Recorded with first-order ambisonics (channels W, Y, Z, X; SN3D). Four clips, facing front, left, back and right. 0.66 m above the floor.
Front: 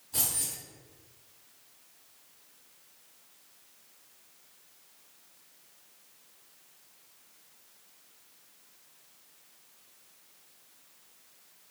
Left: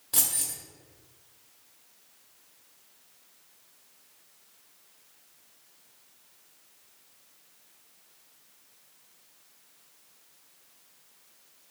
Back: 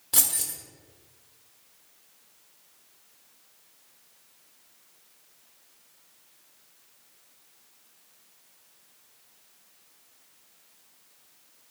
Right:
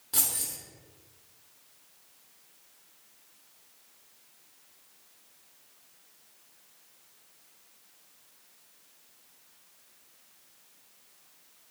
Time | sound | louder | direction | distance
0.1 | keys jangling | left 2 dB, back 6 dB | 175° left | 1.0 m